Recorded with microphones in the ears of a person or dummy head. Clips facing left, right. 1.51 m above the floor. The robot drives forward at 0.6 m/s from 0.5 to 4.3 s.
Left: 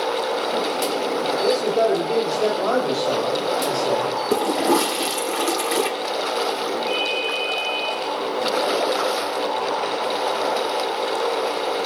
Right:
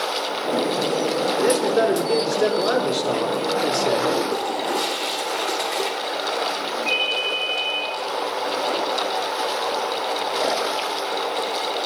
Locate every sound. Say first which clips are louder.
1.4 s a man speaking: even; 10° right (ahead or behind), 4.5 m; by 4.1 s 20° right (ahead or behind), 3 m
4.3 s a toilet flushing: left 5 dB; 40° left (ahead or behind), 1.1 m
6.9 s a ringtone: left 3 dB; 40° right (ahead or behind), 8.5 m